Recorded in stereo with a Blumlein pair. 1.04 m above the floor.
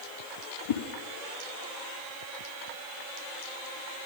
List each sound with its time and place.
0.7 s a whoosh: 60° left, 1.4 m